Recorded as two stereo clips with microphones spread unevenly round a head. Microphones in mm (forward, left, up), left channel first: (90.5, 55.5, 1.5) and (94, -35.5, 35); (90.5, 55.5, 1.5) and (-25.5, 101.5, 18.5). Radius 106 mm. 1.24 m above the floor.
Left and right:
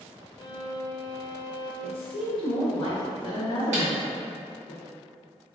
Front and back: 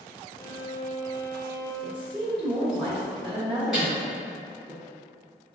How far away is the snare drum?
About 0.9 m.